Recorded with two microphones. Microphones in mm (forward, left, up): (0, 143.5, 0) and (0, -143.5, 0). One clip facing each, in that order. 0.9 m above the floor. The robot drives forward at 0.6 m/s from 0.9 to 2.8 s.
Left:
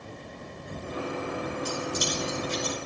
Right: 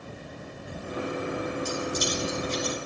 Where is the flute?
No flute in this recording.